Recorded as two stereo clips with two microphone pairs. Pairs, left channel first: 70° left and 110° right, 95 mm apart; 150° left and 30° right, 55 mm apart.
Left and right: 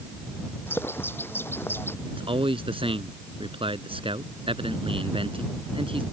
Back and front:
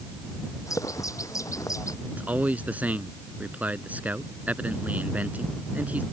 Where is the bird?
140° left.